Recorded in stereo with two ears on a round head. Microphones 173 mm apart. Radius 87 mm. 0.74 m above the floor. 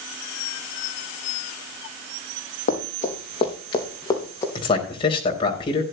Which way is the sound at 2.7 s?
40° left (ahead or behind).